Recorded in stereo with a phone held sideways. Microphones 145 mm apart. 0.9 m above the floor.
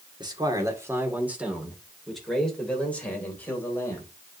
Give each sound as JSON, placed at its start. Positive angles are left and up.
{"t": 0.2, "sound": "a man speaking", "side_deg": -30, "distance_m": 1.9}